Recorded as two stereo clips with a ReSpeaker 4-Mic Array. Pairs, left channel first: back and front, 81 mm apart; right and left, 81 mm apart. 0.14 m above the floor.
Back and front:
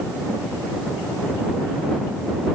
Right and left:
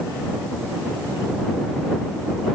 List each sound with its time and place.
Only background noise.